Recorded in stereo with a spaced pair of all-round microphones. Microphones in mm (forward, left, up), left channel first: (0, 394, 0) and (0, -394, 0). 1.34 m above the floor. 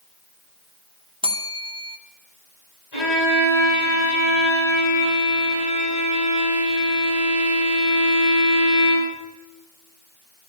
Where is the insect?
No insect in this recording.